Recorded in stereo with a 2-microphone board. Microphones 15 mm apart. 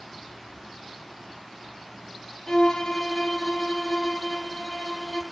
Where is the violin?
50° left (ahead or behind), 3 m.